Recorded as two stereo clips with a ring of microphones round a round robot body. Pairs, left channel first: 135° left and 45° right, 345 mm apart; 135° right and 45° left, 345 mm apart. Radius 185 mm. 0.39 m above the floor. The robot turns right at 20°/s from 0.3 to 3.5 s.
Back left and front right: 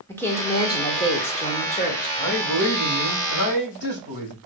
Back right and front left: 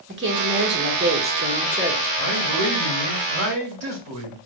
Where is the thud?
No thud in this recording.